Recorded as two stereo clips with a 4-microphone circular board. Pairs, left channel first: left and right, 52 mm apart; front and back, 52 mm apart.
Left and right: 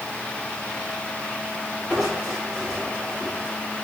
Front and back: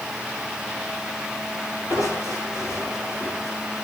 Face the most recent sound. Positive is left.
turn(degrees=-10)